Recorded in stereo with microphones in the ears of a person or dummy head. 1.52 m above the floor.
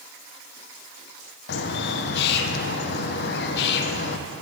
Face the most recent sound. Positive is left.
turn(degrees=65)  # may be behind; listen again after turning